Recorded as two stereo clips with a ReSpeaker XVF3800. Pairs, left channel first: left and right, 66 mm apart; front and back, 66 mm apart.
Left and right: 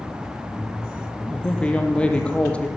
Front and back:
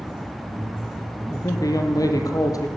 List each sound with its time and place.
1.3 s a woman speaking: 20° left, 4 m